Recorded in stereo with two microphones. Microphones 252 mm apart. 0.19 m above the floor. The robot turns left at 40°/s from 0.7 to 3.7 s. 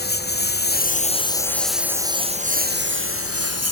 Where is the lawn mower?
40° left; by 3.7 s 80° right.